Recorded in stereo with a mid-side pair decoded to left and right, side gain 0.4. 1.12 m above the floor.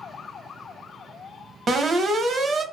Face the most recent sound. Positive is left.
turn(degrees=-55)